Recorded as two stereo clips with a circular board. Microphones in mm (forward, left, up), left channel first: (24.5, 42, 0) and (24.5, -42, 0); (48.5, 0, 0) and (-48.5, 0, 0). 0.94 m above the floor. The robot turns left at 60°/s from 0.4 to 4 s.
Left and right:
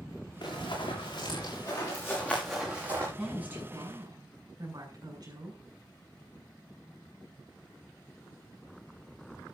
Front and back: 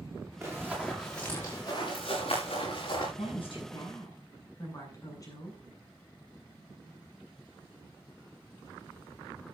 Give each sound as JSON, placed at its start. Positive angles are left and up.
{"t": 0.4, "sound": "running footsteps", "azimuth_deg": 120, "distance_m": 8.0}
{"t": 3.2, "sound": "a woman speaking", "azimuth_deg": -5, "distance_m": 8.0}